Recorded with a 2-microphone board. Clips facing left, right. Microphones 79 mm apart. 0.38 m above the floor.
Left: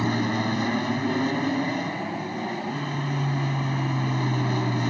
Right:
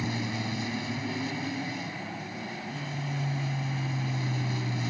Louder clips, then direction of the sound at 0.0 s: Left 8 dB; 60° left (ahead or behind).